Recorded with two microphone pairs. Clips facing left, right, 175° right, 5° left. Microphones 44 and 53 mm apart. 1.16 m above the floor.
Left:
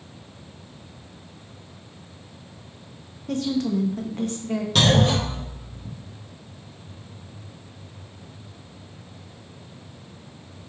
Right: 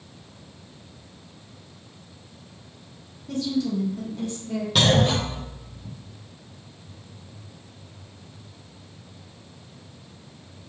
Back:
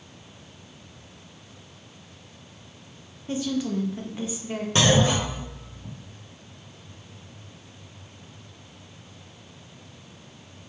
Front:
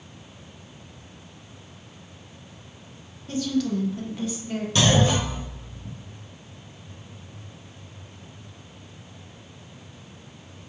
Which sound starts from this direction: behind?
A clunk, at 4.8 s.